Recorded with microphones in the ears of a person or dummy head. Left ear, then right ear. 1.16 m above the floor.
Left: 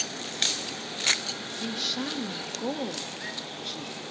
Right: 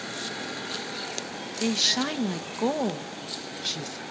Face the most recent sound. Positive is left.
turn(degrees=-45)  # may be behind; listen again after turning